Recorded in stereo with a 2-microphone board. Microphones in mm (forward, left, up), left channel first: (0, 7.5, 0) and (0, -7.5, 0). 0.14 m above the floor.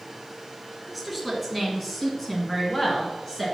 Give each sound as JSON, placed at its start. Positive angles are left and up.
{"t": 0.9, "sound": "a woman speaking", "side_deg": 0, "distance_m": 1.9}